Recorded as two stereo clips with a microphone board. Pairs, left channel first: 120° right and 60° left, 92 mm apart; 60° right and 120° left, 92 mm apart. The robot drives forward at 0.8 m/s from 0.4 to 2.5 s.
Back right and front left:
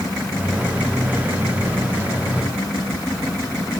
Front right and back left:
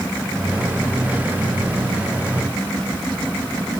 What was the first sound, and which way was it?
Only background noise.